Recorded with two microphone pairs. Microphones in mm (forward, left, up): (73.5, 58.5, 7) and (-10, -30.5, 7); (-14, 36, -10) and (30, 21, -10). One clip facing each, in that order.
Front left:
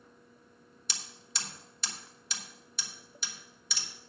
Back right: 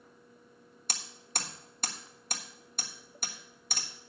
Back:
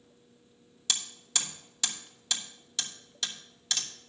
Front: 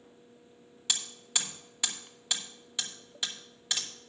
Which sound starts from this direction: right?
Hammering, at 0.9 s.